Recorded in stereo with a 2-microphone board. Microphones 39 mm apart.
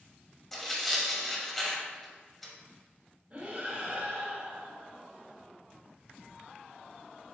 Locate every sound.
0.5 s tearing paper: 5° left (ahead or behind), 1.1 m
3.3 s breathing: 40° right (ahead or behind), 1.5 m